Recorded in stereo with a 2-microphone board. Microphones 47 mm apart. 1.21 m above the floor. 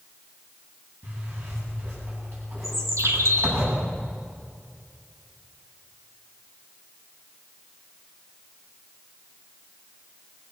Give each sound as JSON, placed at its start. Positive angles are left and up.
{"t": 1.0, "sound": "a zipper", "side_deg": -60, "distance_m": 9.5}
{"t": 2.6, "sound": "a bird", "side_deg": -85, "distance_m": 2.0}